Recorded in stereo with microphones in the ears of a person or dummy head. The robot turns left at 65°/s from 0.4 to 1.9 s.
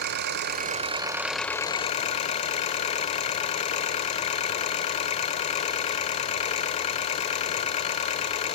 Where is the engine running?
120° right, 1.1 m; by 8.6 s 145° left, 1.1 m.